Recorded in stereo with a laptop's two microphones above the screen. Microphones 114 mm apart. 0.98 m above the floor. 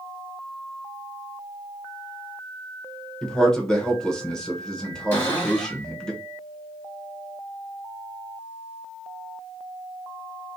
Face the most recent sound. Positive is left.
turn(degrees=20)  # may be behind; listen again after turning